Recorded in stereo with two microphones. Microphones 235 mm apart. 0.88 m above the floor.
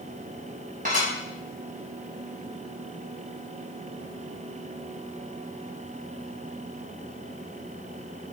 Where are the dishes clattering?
35° right (ahead or behind), 3.5 m.